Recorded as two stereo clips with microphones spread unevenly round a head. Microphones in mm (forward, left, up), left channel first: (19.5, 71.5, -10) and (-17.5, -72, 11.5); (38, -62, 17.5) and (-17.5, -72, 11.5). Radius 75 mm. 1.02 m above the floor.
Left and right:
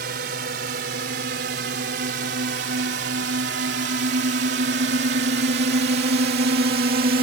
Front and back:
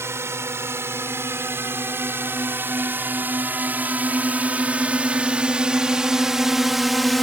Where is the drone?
130° right; by 7.2 s 80° right.